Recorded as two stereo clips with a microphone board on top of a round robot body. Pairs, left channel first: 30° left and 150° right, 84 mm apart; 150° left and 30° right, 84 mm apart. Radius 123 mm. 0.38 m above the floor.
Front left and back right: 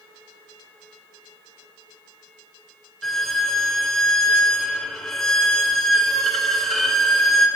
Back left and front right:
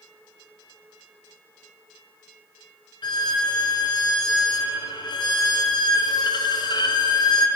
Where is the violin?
115° left, 0.6 m.